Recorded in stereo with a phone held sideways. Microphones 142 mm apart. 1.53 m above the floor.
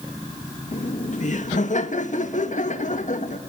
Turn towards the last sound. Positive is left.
turn(degrees=60)  # may be behind; listen again after turning